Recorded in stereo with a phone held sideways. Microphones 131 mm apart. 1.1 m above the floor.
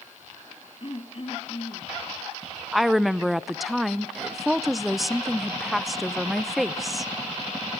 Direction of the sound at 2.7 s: Centre (ahead or behind).